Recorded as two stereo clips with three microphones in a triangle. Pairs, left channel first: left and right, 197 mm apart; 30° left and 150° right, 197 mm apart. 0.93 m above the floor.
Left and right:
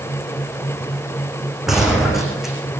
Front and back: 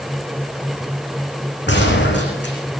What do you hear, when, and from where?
1.7 s a gunshot: straight ahead, 10 m